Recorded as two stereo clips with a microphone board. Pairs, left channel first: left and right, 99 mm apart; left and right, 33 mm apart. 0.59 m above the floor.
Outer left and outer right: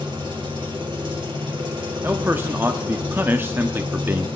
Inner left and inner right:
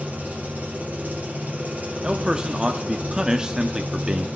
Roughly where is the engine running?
Right.